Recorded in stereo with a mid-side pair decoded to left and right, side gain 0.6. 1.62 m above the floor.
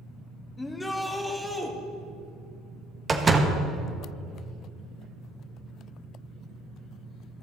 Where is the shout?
15° left, 1.5 m; by 1.7 s 10° right, 2.5 m.